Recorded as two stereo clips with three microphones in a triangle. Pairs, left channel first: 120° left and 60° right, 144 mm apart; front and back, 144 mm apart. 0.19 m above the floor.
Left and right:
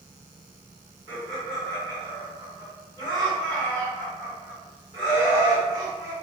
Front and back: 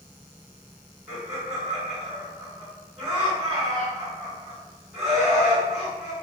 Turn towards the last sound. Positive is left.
turn(degrees=-80)